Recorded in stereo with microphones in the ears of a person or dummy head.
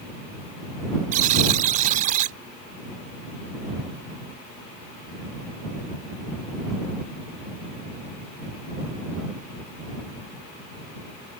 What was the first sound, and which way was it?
A buzzer, 45° right (ahead or behind).